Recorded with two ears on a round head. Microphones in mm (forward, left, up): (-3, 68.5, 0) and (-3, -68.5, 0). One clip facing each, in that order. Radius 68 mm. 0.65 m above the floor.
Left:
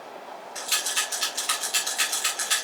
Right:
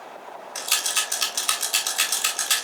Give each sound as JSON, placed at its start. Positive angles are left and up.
{"t": 0.6, "sound": "a rattle", "side_deg": -60, "distance_m": 4.0}